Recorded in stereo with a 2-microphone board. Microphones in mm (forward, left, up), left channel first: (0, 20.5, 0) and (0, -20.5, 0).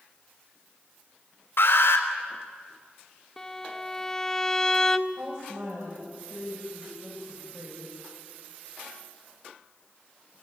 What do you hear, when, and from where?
1.6 s an alarm: 70° left (ahead or behind), 3.5 m
3.4 s a violin: 10° left (ahead or behind), 0.9 m
5.1 s a woman speaking: 80° right, 7.5 m